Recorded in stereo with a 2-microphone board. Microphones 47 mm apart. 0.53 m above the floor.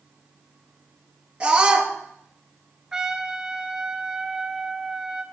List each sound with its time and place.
1.4 s a scream: 20° right (ahead or behind), 7.5 m
2.9 s a trumpet: 15° right (ahead or behind), 1.5 m